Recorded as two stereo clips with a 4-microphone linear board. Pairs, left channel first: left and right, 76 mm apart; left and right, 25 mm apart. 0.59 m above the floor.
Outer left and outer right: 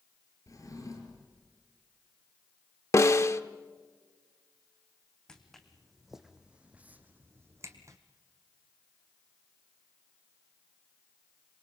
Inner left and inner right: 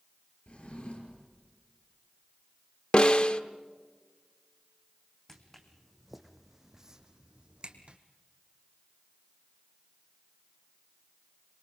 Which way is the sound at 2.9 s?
40° left (ahead or behind).